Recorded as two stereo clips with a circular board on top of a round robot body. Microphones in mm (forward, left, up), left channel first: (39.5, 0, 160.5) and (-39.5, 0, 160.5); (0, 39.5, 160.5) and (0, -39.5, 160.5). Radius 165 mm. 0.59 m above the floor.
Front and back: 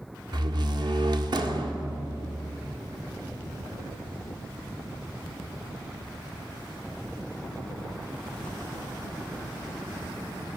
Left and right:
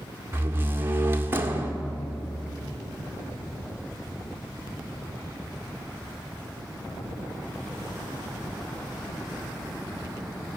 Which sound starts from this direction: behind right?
A door slam, at 0.3 s.